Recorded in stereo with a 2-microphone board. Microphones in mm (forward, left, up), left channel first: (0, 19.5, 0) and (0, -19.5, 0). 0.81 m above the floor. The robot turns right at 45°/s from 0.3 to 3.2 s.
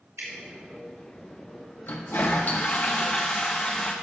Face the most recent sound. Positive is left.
turn(degrees=145)